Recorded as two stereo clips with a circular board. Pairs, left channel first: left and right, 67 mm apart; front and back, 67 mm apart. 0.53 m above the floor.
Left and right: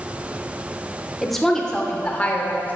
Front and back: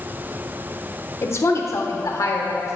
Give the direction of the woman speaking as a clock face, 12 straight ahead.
12 o'clock.